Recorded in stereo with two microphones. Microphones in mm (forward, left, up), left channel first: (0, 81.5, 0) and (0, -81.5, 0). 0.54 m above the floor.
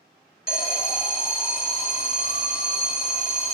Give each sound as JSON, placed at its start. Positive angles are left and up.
{"t": 0.5, "sound": "an alarm", "side_deg": 65, "distance_m": 1.8}